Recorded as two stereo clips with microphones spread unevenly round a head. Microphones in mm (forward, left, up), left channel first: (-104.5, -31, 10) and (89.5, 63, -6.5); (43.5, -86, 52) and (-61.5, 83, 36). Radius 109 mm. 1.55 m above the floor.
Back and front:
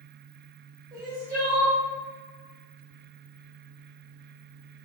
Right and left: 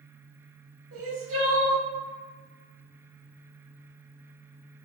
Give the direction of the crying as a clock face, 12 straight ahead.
9 o'clock.